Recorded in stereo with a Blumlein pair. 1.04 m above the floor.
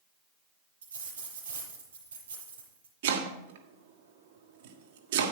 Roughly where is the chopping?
Ahead right.